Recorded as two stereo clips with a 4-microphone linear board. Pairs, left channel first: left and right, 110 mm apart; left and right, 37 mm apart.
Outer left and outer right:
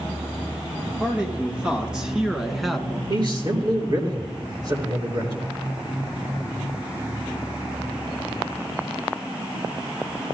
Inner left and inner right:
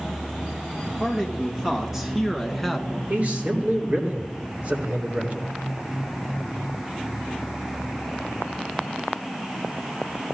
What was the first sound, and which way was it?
A man speaking, 15° right (ahead or behind).